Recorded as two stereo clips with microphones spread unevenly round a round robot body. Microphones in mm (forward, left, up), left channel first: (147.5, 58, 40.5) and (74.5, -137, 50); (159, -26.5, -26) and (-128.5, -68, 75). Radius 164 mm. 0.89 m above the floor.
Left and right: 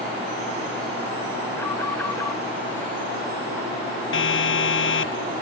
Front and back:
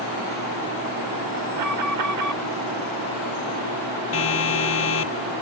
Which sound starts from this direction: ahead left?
A siren, at 4.1 s.